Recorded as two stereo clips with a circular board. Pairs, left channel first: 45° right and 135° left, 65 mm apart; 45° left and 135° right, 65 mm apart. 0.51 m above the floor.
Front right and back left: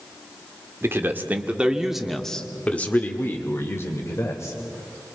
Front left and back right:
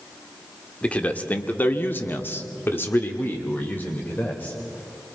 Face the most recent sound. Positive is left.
turn(degrees=-15)